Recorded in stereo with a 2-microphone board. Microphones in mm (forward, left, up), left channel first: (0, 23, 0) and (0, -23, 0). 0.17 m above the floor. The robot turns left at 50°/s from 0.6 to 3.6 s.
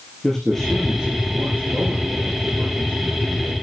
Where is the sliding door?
I don't hear a sliding door.